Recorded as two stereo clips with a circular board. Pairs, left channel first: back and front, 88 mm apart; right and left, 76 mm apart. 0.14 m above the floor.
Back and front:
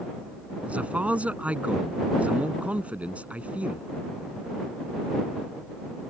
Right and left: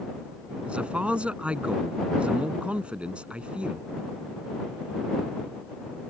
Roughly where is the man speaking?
Ahead left.